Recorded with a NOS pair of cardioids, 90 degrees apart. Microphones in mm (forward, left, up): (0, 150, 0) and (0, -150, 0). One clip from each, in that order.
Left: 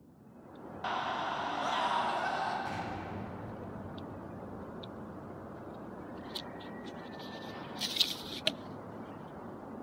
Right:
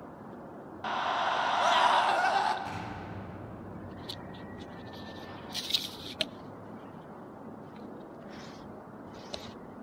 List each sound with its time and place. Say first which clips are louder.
0.8 s a scream: right 4 dB; 5° right, 0.6 m; by 2.5 s 65° right, 2 m
2.6 s an explosion: left 1 dB; 30° right, 9.5 m